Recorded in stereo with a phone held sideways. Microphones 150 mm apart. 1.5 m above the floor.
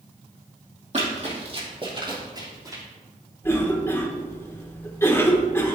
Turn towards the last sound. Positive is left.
turn(degrees=15)  # may be behind; listen again after turning